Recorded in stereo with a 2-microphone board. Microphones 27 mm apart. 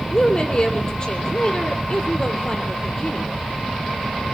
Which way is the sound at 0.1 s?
30° left (ahead or behind).